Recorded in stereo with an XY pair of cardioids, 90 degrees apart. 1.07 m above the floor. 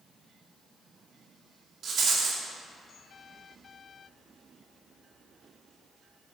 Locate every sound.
1.8 s a rattle: 60° right, 2 m